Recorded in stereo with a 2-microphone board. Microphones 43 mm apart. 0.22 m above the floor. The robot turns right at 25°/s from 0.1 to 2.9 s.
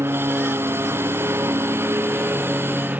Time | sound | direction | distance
0.0 | a lawn mower | 110° right | ?